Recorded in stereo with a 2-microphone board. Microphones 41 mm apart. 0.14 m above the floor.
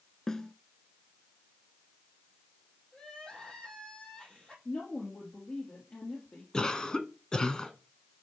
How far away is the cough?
About 1.2 m.